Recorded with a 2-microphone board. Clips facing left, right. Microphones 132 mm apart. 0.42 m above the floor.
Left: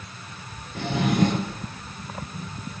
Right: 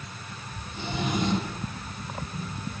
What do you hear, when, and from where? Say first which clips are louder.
0.8 s a drawer: left 7 dB; 85° left, 3 m